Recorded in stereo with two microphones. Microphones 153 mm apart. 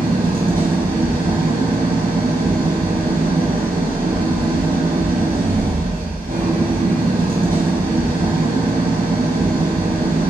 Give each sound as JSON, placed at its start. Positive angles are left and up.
{"t": 0.0, "sound": "an engine running", "side_deg": -70, "distance_m": 1.9}